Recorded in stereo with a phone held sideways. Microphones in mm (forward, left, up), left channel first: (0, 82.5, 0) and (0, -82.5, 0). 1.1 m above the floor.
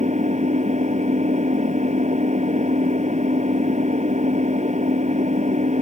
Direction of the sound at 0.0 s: 50° right (ahead or behind).